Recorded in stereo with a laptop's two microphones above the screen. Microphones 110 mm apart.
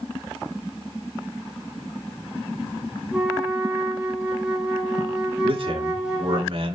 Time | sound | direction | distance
3.1 | a flute | 5° right (ahead or behind) | 4.5 m
5.4 | a man speaking | 55° right (ahead or behind) | 3 m